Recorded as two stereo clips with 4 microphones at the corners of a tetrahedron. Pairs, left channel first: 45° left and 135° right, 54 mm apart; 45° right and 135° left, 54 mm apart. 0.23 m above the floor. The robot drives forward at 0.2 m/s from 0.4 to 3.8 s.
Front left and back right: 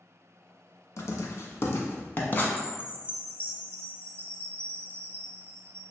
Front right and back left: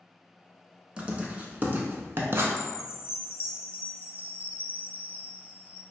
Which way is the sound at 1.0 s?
65° left.